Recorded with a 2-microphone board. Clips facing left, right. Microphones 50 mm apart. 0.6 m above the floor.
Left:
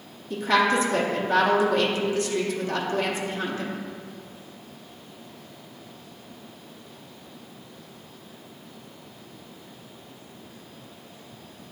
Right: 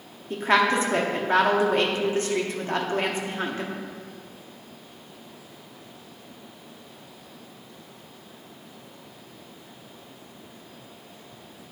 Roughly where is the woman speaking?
Right.